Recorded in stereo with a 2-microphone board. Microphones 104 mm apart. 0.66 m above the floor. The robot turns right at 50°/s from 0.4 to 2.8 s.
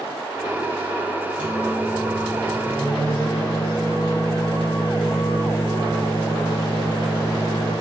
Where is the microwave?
25° right, 1.8 m; by 7.7 s 45° left, 1.8 m.